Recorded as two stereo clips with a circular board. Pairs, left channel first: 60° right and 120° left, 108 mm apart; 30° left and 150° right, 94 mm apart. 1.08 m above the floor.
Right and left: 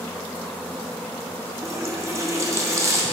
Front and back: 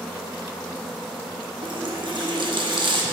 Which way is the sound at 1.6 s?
Straight behind.